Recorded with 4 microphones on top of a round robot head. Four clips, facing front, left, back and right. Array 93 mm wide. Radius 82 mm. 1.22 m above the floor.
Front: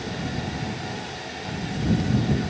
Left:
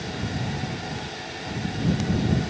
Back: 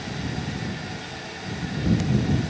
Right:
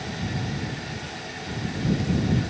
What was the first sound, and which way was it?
Only background noise.